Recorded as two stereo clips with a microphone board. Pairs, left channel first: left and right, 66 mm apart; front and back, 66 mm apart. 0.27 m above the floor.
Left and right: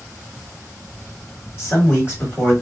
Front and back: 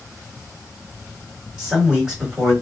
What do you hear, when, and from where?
1.6 s a man speaking: 105° left, 1.9 m